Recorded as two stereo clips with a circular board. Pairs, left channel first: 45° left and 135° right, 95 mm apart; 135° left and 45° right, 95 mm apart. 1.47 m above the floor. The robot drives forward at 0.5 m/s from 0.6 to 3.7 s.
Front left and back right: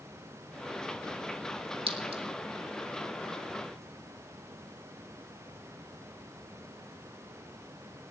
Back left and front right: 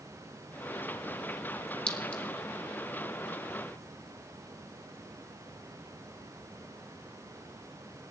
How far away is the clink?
About 2 m.